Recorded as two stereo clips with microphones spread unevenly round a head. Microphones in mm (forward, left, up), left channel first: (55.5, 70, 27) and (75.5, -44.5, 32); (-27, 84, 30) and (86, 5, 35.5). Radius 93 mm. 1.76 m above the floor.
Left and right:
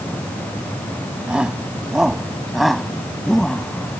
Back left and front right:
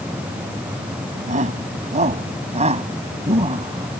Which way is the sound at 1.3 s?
Straight ahead.